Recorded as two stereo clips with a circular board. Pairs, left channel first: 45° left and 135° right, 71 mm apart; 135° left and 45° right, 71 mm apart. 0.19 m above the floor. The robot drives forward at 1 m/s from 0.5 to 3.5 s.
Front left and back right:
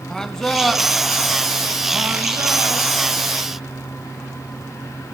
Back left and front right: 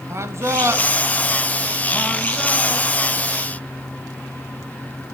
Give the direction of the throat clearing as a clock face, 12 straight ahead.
No throat clearing in this recording.